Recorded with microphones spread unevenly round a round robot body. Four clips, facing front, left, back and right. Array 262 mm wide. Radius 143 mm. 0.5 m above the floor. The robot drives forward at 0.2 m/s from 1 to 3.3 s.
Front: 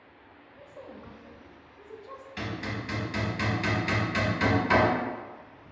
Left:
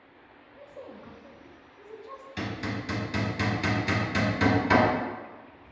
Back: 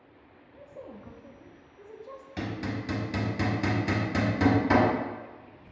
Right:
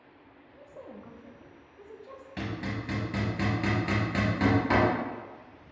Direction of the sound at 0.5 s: 130° right.